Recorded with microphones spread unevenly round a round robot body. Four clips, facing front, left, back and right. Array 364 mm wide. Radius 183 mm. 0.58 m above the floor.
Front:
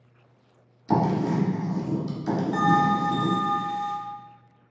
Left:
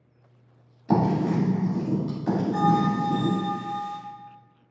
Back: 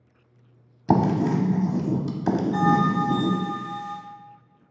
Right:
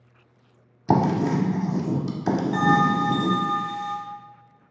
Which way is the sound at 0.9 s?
125° right.